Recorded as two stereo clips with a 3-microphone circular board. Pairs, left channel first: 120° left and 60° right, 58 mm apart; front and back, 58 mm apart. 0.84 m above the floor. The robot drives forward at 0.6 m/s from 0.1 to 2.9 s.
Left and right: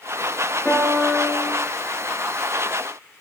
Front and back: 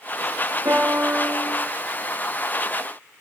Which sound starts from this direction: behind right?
A piano, at 0.7 s.